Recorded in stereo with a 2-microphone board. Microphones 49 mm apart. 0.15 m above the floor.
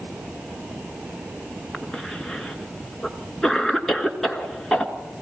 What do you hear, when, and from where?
1.7 s a cough: 5° left (ahead or behind), 1.7 m